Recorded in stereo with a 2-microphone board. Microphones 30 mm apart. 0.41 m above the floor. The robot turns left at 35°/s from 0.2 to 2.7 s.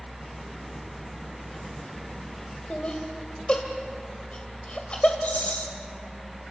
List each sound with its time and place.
2.7 s laughter: 40° left (ahead or behind), 1.7 m
5.2 s a rattle: 60° left (ahead or behind), 2.5 m